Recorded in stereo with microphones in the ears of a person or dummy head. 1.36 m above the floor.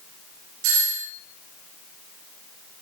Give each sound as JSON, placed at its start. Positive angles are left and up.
{"t": 0.6, "sound": "a doorbell", "side_deg": -70, "distance_m": 4.0}